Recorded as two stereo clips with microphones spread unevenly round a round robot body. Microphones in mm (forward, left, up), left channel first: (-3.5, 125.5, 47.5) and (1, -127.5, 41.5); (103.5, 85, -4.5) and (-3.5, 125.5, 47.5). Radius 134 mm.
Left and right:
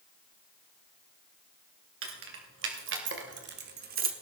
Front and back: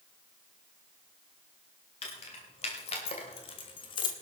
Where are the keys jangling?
50° right, 3 m; by 4.1 s 35° right, 1.2 m.